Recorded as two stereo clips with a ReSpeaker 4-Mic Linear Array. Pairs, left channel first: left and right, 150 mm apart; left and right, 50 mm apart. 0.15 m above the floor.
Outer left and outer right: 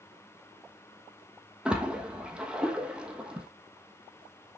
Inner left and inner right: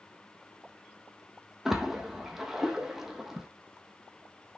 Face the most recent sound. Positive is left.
turn(degrees=-5)  # may be behind; listen again after turning